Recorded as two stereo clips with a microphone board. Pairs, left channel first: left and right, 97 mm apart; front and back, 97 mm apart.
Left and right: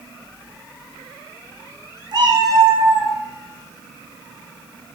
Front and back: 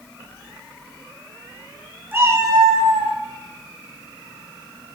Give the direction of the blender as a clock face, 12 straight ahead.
I don't hear a blender.